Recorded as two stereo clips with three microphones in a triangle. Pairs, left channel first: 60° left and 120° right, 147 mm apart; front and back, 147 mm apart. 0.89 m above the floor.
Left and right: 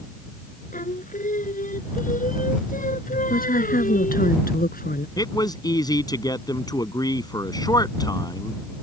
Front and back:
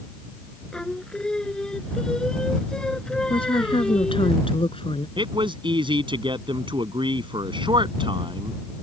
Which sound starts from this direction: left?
Singing, at 0.7 s.